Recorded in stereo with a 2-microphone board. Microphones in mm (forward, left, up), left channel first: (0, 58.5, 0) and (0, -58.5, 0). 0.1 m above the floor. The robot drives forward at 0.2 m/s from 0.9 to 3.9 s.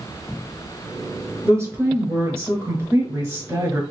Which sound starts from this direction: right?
A woman speaking, at 1.4 s.